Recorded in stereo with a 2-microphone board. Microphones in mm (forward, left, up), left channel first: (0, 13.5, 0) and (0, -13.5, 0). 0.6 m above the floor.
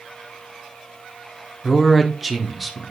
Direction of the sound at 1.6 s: 5° right (ahead or behind).